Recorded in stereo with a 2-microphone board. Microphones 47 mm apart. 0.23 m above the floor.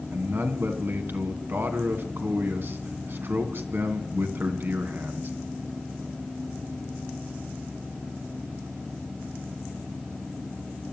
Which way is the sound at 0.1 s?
55° right (ahead or behind).